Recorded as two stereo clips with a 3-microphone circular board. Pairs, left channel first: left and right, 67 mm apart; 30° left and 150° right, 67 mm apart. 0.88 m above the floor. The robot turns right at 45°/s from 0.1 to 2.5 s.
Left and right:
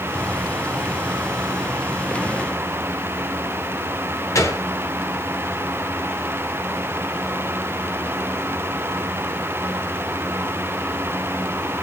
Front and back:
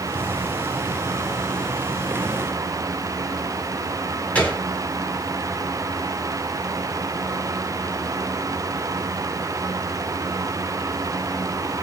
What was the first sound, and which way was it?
A gunshot, 90° left.